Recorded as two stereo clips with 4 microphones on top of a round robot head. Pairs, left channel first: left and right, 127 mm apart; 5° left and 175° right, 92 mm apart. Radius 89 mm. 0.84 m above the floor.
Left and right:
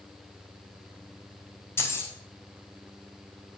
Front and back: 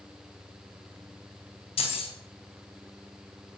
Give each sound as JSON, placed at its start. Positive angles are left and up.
{"t": 1.8, "sound": "keys jangling", "azimuth_deg": 20, "distance_m": 3.5}